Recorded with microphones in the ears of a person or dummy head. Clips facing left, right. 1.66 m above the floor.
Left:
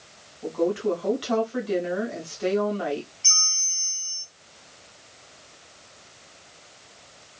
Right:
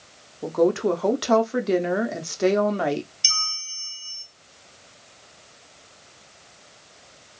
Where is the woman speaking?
60° right (ahead or behind), 0.7 m.